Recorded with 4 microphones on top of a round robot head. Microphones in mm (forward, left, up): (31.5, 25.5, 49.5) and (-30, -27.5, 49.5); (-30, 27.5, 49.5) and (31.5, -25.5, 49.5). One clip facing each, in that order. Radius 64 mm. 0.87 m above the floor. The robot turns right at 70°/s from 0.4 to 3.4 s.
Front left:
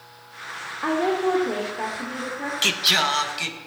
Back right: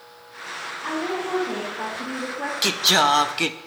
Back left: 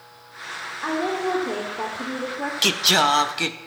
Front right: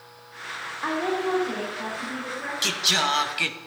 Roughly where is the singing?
Behind left.